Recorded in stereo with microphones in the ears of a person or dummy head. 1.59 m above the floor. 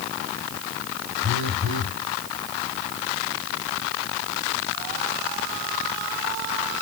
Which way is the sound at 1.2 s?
45° right (ahead or behind).